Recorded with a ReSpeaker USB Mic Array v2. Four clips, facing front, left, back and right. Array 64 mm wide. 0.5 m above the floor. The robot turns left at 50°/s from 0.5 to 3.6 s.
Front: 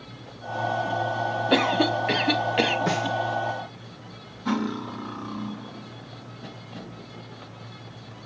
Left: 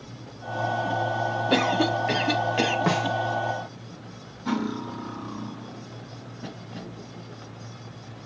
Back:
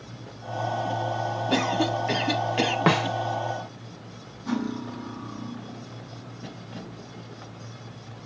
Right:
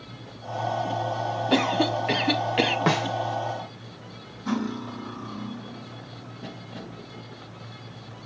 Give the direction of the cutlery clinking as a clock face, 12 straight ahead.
11 o'clock.